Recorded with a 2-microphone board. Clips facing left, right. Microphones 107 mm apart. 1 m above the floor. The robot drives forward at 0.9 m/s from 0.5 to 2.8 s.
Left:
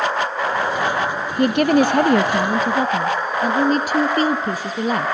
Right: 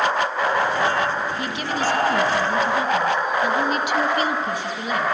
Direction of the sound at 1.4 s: 55° left (ahead or behind).